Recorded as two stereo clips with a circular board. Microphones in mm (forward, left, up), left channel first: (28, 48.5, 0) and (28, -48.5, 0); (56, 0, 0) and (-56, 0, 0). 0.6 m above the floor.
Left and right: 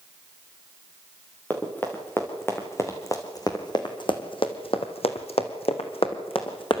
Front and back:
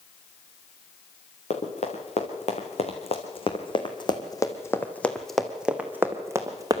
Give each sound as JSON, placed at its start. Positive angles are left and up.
{"t": 1.5, "sound": "running footsteps", "azimuth_deg": 15, "distance_m": 4.0}